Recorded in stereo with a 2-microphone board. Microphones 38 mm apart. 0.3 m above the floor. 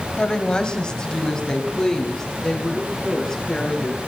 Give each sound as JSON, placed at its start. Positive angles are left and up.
{"t": 0.2, "sound": "a woman speaking", "side_deg": 25, "distance_m": 1.7}